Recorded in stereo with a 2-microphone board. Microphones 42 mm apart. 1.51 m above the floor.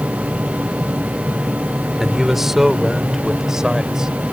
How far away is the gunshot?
I don't hear a gunshot.